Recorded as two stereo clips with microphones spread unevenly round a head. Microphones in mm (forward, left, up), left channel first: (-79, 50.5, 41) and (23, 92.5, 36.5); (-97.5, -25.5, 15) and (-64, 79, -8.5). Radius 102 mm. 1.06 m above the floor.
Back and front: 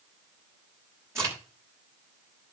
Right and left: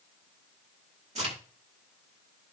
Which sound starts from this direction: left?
A crack, at 1.1 s.